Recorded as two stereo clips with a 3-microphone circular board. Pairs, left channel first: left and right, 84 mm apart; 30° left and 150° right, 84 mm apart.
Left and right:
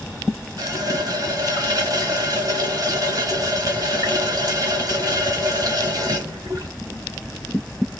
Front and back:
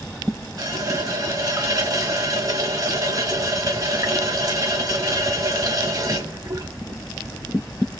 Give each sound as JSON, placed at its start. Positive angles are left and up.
{"t": 0.6, "sound": "a running tap", "azimuth_deg": -120, "distance_m": 1.2}